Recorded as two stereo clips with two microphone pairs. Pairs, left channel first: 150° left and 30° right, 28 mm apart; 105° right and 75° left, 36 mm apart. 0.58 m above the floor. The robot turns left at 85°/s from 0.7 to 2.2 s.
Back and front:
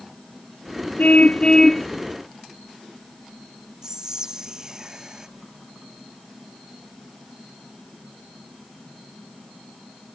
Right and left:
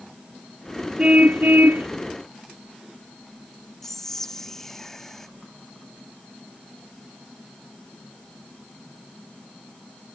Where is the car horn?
135° left; by 1.9 s 60° left.